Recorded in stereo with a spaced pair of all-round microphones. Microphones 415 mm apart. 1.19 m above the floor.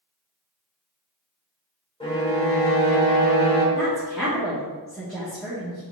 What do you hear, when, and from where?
2.0 s a violin: 15° left (ahead or behind), 1.0 m
3.8 s a woman speaking: centre (ahead or behind), 1.2 m